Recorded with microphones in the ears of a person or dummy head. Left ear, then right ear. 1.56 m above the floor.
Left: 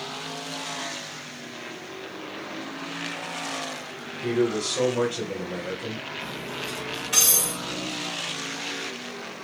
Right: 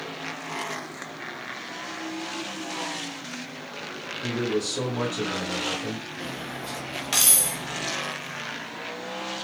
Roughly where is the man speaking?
Left.